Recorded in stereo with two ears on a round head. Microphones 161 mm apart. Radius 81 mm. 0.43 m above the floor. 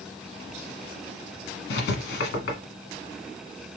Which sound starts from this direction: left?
Writing, at 1.7 s.